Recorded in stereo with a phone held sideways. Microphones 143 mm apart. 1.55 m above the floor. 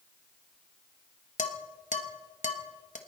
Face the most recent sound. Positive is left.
turn(degrees=60)  # may be behind; listen again after turning